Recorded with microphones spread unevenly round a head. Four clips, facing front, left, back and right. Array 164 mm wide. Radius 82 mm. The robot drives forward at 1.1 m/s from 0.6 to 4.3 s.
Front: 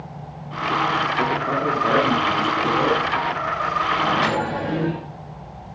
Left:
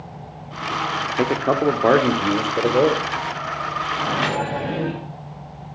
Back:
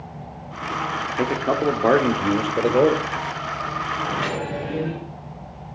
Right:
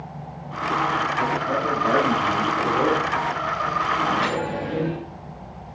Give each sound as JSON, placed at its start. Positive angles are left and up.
{"t": 1.2, "sound": "a man speaking", "azimuth_deg": 105, "distance_m": 2.0}
{"t": 4.0, "sound": "a microwave", "azimuth_deg": 40, "distance_m": 7.0}